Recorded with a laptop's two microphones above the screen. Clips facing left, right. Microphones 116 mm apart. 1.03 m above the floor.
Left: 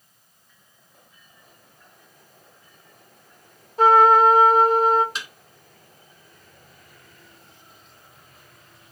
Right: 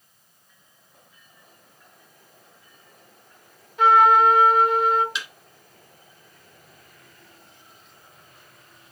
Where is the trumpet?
35° left (ahead or behind), 0.8 m.